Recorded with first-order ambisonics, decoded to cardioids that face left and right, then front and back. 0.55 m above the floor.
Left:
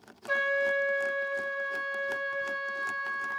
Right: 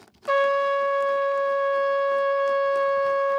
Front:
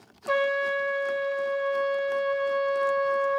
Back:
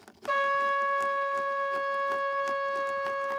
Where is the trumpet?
95° right, 0.5 m.